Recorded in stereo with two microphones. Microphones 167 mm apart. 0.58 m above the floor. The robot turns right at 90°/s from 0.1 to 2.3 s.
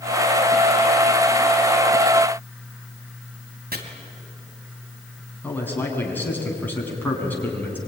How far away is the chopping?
About 3 m.